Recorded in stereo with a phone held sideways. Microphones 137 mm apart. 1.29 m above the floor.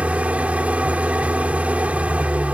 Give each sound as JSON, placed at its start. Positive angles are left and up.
{"t": 0.0, "sound": "an engine running", "side_deg": -10}